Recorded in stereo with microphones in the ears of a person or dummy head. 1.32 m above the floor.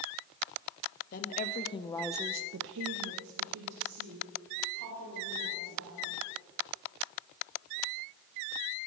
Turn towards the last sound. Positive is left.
turn(degrees=-65)  # may be behind; listen again after turning